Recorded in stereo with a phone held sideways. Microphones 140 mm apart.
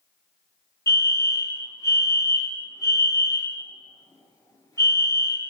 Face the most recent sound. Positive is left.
turn(degrees=25)  # may be behind; listen again after turning